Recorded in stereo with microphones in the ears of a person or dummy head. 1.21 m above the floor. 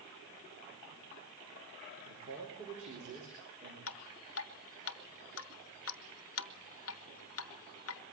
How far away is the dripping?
About 0.9 m.